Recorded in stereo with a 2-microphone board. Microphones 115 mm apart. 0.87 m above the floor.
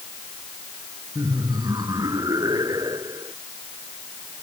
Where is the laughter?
30° right (ahead or behind).